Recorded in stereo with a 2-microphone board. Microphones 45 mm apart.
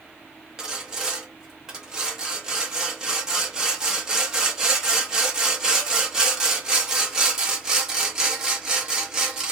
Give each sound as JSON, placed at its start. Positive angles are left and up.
{"t": 0.6, "sound": "sawing", "side_deg": -15, "distance_m": 1.0}